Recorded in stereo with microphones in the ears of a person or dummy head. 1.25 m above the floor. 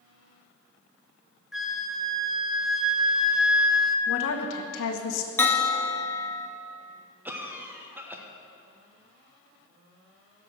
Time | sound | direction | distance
1.5 | a flute | 5° right (ahead or behind) | 0.6 m
4.1 | a woman speaking | 70° left (ahead or behind) | 1.1 m
5.4 | a bell | 15° left (ahead or behind) | 0.6 m
7.2 | a cough | 10° right (ahead or behind) | 1.0 m